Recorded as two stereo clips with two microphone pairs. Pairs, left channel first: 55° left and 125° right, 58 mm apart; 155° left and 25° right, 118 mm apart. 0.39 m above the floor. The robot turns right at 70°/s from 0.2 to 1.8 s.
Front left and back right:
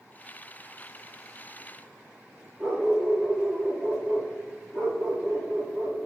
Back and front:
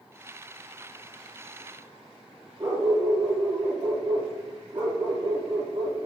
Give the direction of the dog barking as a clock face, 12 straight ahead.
2 o'clock.